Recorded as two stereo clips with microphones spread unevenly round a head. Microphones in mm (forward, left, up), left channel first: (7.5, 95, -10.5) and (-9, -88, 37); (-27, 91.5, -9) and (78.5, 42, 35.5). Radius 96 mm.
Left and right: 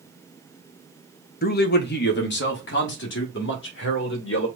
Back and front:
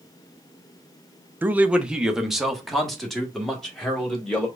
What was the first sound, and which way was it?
A man speaking, 55° left.